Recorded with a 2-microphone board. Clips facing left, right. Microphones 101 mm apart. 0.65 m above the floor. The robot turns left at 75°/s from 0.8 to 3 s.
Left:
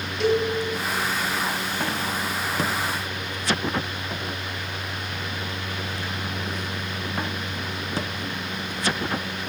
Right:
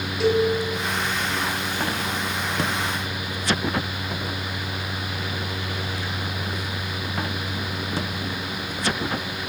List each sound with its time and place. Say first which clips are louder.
0.2 s a cowbell: right 2 dB; 5° right (ahead or behind), 0.6 m